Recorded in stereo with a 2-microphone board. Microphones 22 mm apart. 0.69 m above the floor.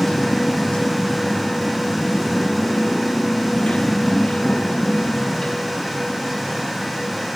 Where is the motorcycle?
60° left (ahead or behind); by 7.4 s 70° left (ahead or behind).